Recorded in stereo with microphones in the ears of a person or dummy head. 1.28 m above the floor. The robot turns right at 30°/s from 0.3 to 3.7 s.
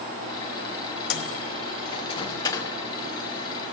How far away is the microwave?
About 0.9 m.